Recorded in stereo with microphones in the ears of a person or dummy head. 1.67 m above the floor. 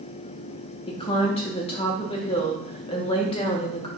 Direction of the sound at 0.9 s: 25° left (ahead or behind).